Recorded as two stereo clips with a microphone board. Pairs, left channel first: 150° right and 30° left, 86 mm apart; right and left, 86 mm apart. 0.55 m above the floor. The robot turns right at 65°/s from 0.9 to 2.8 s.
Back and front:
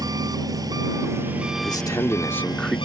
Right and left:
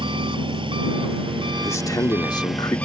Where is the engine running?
70° left; by 2.9 s 165° right.